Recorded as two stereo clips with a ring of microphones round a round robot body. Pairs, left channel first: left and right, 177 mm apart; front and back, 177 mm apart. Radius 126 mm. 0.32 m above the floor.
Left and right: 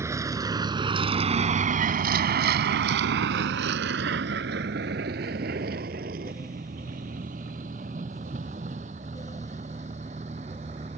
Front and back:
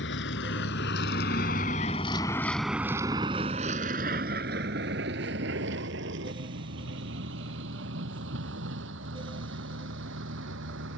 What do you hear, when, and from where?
0.0 s a vehicle: 15° right; by 11.0 s 155° right